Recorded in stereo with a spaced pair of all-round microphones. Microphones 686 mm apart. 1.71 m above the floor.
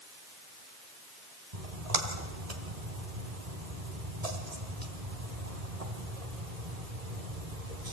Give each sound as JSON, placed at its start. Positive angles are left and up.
{"t": 1.5, "sound": "a splash", "side_deg": -55, "distance_m": 2.5}